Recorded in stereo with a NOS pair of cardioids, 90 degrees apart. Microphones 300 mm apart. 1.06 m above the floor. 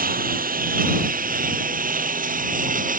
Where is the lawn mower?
30° right; by 3.0 s 25° right.